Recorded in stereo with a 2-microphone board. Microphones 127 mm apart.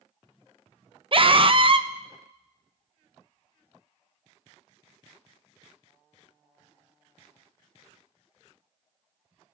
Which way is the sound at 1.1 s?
45° right (ahead or behind).